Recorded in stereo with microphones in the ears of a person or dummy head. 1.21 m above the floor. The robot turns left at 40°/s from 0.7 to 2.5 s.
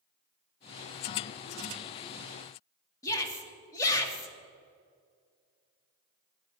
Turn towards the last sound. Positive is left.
turn(degrees=15)  # may be behind; listen again after turning